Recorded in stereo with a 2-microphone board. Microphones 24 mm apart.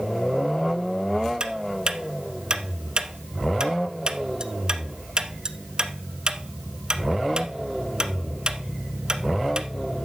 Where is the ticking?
40° right (ahead or behind), 1.0 m.